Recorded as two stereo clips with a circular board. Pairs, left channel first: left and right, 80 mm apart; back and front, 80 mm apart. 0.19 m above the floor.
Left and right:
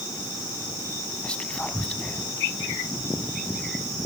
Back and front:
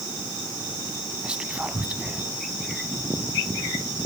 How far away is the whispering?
About 1.0 m.